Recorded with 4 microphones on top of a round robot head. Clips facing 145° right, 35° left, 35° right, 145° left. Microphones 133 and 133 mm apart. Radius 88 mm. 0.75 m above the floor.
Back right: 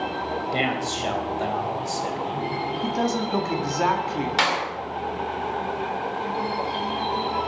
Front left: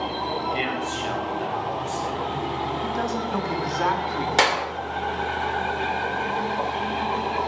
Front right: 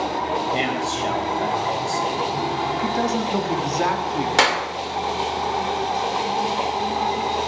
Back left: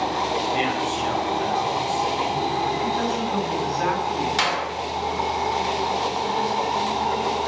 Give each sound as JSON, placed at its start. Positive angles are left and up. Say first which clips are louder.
{"t": 0.5, "sound": "a man speaking", "louder": "back right 1 dB, even", "azimuth_deg": -90, "distance_m": 3.5}
{"t": 2.8, "sound": "a man speaking", "louder": "back right 2 dB, front right 2 dB", "azimuth_deg": -75, "distance_m": 2.0}
{"t": 4.4, "sound": "a clap", "louder": "front left 5 dB, front right 4 dB", "azimuth_deg": -5, "distance_m": 2.5}